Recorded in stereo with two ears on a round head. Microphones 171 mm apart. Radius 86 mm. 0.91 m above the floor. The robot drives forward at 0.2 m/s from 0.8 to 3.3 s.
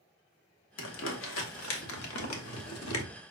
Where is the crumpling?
70° left (ahead or behind), 1.1 m; by 3.0 s 85° left, 1.0 m.